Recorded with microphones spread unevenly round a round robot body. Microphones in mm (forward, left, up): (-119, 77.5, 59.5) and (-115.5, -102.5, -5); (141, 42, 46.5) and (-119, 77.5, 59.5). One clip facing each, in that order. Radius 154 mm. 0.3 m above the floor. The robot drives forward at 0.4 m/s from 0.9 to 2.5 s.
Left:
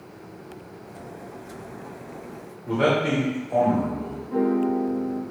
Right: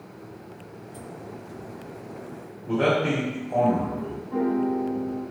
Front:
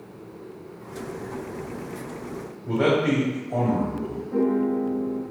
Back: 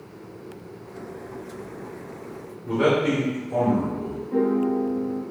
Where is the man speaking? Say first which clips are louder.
Left 1 dB, even; 165° right, 1.3 m.